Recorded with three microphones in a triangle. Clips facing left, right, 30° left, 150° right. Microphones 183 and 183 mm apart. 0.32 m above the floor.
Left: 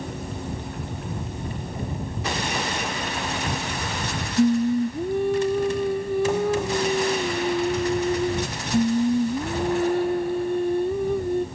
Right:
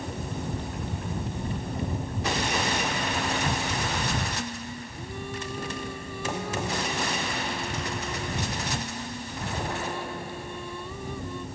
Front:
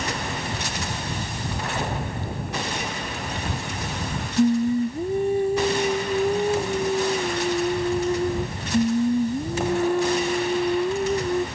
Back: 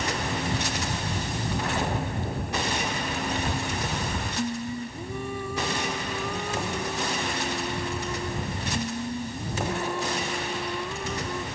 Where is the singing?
75° left.